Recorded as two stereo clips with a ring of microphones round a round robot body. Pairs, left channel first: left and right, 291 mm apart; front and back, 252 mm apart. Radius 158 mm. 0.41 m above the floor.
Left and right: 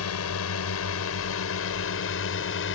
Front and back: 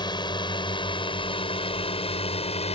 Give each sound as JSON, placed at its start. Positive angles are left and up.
{"t": 0.0, "sound": "a drone", "azimuth_deg": 70}